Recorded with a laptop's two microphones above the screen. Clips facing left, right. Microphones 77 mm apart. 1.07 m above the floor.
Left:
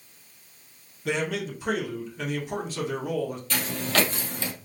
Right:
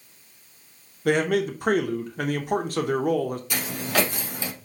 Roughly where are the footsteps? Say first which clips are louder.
Left 1 dB; centre.